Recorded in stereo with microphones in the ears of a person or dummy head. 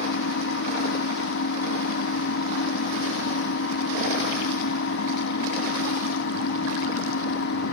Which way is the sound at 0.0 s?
65° left (ahead or behind).